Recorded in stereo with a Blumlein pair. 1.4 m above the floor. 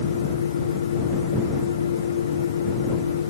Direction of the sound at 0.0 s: 65° left.